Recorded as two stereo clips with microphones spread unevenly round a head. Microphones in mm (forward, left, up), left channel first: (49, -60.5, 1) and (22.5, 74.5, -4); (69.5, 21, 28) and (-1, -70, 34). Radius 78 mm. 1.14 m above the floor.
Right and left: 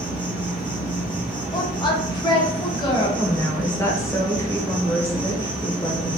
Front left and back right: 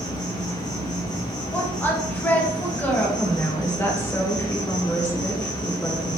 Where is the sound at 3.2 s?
10° right, 0.9 m.